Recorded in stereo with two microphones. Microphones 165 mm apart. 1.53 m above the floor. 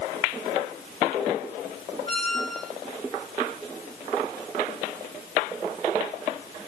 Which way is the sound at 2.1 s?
70° right (ahead or behind).